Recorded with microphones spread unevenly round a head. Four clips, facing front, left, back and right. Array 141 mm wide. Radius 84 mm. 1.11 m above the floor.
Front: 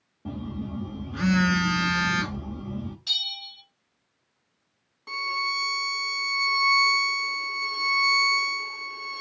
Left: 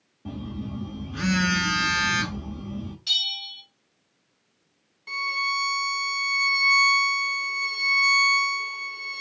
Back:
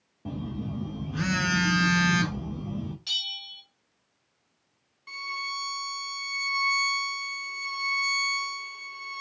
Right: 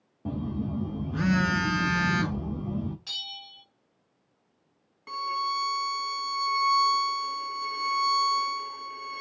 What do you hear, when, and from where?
0.2 s a phone buzzing: 115° right, 0.8 m
3.1 s a bell: 90° right, 1.4 m
5.1 s a violin: 40° right, 0.7 m